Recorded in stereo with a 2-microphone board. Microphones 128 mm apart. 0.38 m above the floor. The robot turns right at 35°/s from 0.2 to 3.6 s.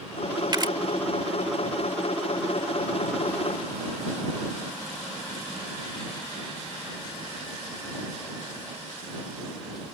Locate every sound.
0.5 s a camera shutter: 35° right (ahead or behind)